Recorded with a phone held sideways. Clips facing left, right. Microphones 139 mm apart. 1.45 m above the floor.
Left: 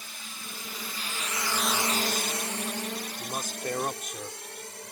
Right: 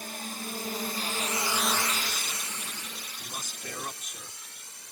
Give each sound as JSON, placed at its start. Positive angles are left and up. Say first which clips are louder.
{"t": 0.0, "sound": "a drone", "louder": "right 8 dB", "side_deg": -50}
{"t": 3.2, "sound": "a man speaking", "louder": "left 6 dB", "side_deg": 55}